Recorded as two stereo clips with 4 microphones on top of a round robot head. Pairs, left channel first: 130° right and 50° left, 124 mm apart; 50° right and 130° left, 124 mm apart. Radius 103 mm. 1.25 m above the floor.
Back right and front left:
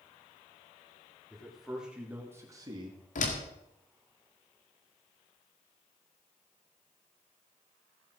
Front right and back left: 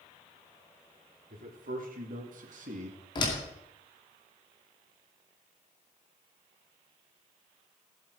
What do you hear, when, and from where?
1.3 s a man speaking: 145° left, 3.5 m; by 3.0 s 100° left, 2 m
3.1 s a door slam: 110° right, 2 m